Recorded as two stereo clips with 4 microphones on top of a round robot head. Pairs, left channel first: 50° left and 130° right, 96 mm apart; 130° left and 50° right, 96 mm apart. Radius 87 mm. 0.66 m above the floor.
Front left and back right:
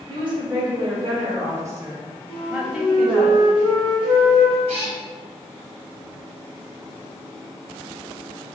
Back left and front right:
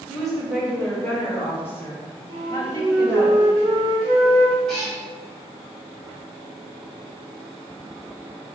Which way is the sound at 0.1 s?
145° right.